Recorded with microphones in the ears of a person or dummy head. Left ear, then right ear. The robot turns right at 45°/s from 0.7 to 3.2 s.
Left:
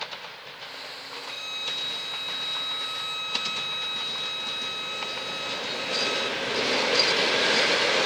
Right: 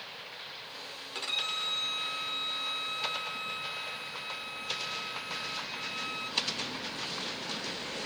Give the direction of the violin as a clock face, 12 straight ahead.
1 o'clock.